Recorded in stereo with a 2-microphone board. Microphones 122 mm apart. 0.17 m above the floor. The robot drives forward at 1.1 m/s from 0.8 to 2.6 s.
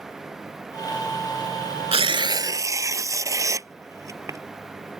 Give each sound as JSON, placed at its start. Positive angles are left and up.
{"t": 1.9, "sound": "tearing paper", "side_deg": -55}